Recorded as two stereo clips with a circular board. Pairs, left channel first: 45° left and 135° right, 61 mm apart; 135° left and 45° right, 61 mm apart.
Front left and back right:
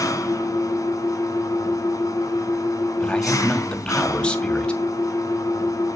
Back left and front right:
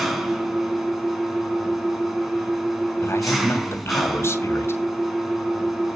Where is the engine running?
45° left, 2.5 m.